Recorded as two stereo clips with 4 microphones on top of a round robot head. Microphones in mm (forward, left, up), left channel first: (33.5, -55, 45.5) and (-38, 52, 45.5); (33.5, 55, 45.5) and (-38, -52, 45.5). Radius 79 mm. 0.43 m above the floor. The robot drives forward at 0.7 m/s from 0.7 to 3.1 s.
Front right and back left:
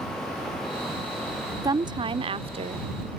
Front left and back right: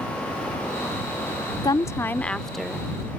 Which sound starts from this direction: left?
A woman speaking, at 1.6 s.